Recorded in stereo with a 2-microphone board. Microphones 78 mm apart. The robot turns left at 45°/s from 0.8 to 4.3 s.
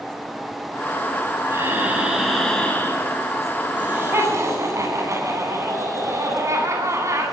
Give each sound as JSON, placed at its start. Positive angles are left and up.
{"t": 1.5, "sound": "breathing", "azimuth_deg": -140, "distance_m": 6.0}
{"t": 3.8, "sound": "laughter", "side_deg": -15, "distance_m": 9.5}